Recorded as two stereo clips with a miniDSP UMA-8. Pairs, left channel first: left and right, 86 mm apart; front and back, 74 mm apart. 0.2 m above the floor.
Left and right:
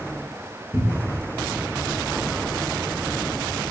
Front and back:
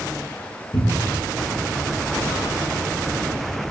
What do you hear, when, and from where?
0.7 s a cupboard door: 25° right, 1.2 m